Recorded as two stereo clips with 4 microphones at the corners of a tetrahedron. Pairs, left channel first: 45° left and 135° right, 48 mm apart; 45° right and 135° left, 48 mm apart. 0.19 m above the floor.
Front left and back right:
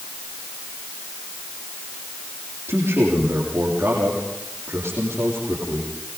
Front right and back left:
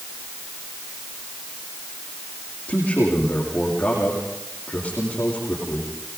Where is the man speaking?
105° right, 7.5 m.